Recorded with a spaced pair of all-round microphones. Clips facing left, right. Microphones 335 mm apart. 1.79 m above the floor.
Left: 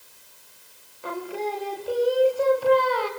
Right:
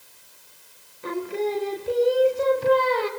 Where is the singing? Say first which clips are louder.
Right 4 dB; 30° right (ahead or behind), 1.4 m.